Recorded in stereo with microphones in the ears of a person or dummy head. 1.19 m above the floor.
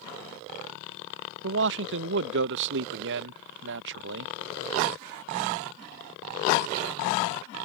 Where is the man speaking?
70° right (ahead or behind).